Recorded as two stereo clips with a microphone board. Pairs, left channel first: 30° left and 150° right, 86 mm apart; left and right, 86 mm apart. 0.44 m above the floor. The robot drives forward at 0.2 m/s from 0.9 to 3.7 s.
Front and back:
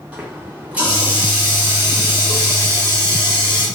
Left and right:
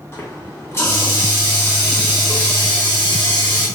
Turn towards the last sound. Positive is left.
turn(degrees=155)